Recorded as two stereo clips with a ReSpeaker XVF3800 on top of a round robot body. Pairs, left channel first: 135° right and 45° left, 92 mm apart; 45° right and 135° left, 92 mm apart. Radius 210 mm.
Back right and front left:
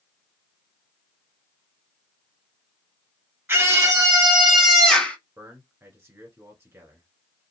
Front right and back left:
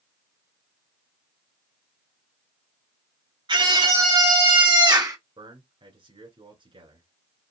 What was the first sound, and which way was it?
A scream, 115° left.